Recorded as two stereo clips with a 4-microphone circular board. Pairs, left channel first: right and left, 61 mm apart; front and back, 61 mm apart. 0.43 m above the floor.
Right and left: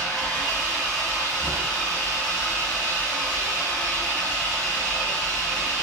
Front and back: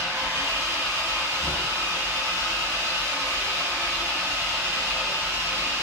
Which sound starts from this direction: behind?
An engine running, at 0.0 s.